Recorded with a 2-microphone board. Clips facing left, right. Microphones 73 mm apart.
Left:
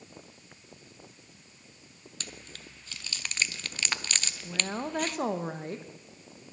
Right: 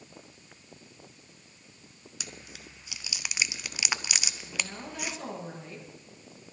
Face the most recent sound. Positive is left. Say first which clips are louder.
# left 5 dB
turn(degrees=45)  # may be behind; listen again after turning